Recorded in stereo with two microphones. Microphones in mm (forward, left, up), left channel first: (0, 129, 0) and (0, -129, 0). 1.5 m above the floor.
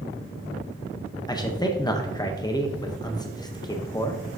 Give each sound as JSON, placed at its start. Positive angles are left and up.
{"t": 1.3, "sound": "a man speaking", "side_deg": 15, "distance_m": 0.6}